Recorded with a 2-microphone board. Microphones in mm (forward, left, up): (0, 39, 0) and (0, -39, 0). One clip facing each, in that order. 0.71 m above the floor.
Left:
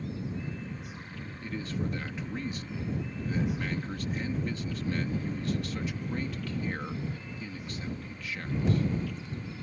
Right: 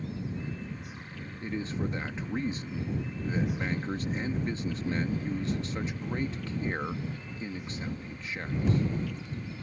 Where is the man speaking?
25° right (ahead or behind).